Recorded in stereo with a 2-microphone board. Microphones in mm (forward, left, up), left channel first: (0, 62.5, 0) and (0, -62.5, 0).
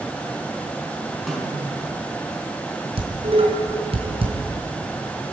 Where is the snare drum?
Centre (ahead or behind), 5.5 m.